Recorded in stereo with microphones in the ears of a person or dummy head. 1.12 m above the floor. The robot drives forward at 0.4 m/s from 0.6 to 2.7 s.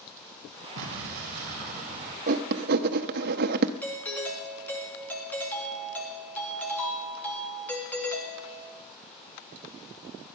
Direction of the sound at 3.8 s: Centre (ahead or behind).